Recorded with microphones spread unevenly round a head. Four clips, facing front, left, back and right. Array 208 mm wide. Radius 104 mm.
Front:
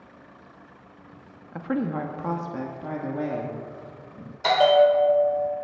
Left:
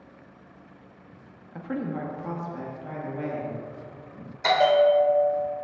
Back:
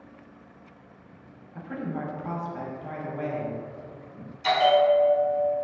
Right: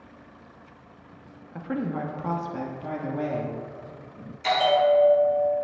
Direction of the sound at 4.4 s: 40° left.